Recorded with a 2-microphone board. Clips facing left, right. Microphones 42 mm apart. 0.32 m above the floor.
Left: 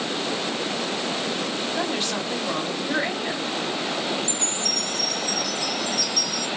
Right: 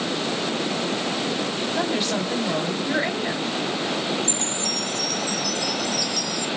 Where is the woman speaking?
10° right (ahead or behind), 2 m.